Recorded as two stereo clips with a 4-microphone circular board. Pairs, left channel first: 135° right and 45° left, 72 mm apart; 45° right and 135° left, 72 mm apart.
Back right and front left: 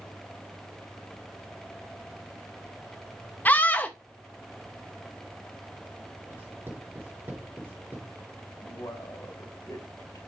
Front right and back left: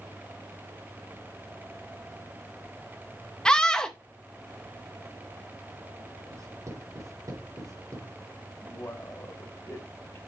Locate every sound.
3.5 s a scream: 115° right, 0.7 m
6.3 s writing: 105° left, 3.5 m
8.6 s a man speaking: 95° right, 3 m